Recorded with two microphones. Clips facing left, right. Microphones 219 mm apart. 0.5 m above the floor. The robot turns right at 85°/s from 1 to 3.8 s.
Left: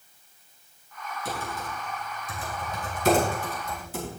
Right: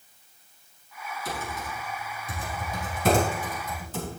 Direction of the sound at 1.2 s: 25° left (ahead or behind).